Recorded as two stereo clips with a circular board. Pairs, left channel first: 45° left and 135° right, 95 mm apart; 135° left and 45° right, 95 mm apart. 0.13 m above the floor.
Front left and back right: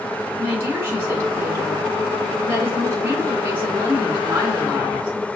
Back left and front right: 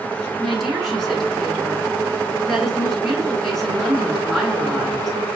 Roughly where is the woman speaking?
Behind right.